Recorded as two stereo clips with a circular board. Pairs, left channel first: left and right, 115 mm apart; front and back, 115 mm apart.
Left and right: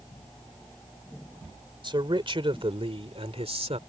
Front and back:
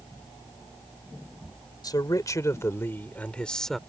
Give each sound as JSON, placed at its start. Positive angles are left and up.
{"t": 1.8, "sound": "a man speaking", "azimuth_deg": -50}